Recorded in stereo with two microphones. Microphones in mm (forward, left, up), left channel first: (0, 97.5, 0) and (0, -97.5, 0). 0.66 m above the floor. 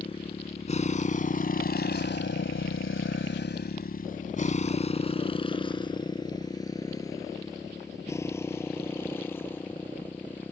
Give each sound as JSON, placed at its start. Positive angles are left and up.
{"t": 0.0, "sound": "a motorcycle", "side_deg": 30}